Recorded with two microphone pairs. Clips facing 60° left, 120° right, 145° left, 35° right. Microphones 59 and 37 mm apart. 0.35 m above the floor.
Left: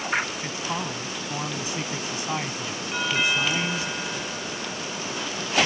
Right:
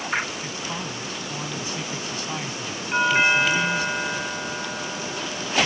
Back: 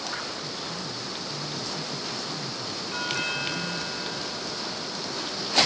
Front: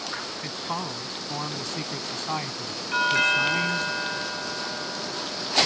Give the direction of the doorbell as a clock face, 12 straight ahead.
3 o'clock.